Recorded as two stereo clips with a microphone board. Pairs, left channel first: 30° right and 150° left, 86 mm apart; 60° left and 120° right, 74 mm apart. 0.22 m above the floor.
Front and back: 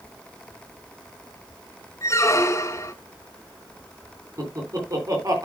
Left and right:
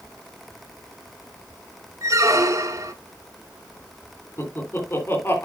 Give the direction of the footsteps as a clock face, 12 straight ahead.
No footsteps in this recording.